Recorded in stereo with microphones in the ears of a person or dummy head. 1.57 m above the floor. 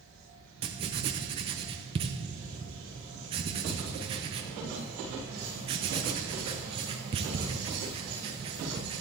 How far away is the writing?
About 0.6 m.